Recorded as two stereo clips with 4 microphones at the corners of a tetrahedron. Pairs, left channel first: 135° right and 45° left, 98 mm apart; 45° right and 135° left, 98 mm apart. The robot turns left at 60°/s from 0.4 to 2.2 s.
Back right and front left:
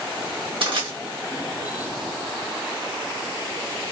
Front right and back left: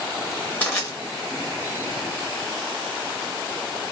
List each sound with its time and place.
0.6 s crushing: 25° left, 1.2 m; by 0.9 s 10° left, 1.2 m